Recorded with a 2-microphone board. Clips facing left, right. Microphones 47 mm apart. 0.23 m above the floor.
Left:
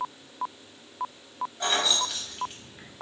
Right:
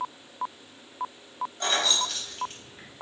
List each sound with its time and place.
1.6 s keys jangling: 5° left (ahead or behind), 0.6 m